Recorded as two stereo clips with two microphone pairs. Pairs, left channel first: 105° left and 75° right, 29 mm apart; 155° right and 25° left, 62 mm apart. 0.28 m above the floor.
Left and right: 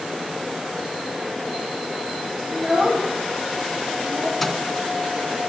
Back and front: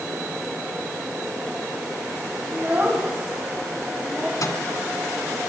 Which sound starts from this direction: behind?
A microwave, at 4.4 s.